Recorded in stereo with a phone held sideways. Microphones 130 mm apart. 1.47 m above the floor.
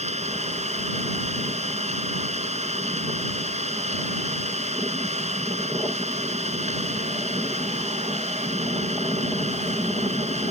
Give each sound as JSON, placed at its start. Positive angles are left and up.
{"t": 0.0, "sound": "an engine running", "side_deg": -60}